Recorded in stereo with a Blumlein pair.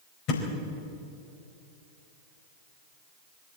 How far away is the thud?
About 4.5 m.